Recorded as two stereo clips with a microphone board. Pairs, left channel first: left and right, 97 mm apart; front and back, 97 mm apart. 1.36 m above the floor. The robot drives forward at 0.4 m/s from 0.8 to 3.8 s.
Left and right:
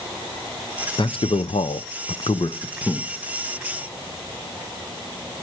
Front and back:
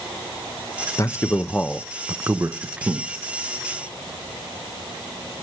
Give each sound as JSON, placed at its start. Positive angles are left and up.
{"t": 1.0, "sound": "a man speaking", "azimuth_deg": 55, "distance_m": 0.6}